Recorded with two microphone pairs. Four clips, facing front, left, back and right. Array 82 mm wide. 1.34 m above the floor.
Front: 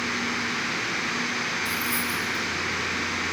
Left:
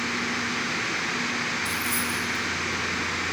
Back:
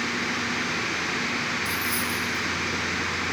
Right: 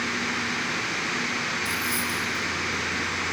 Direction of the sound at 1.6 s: 75° right.